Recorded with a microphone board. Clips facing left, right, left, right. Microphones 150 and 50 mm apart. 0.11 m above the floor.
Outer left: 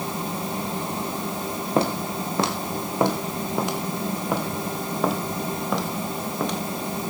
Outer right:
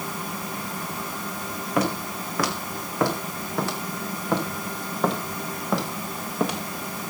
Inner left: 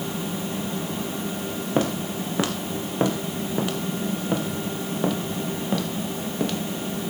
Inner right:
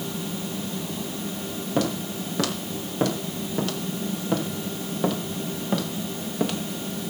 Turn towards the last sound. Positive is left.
turn(degrees=-10)  # may be behind; listen again after turning